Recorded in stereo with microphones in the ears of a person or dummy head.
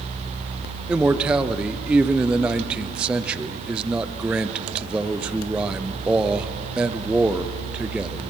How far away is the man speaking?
About 0.8 m.